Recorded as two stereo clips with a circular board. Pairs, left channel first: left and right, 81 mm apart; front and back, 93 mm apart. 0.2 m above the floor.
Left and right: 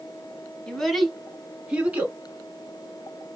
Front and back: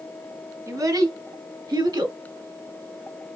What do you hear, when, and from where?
0.7 s a child speaking: 165° left, 1.2 m; by 2.2 s 155° right, 1.7 m